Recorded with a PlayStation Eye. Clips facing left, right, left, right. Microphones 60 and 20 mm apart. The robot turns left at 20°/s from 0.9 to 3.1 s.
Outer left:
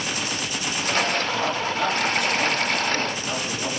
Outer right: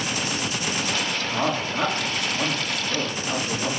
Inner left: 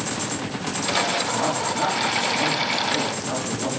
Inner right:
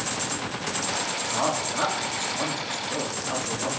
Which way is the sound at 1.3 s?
130° right.